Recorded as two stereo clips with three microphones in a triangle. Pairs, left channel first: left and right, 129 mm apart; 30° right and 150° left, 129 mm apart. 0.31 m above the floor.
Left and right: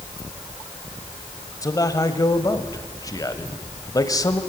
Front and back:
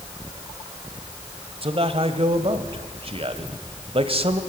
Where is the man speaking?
140° left, 1.4 m.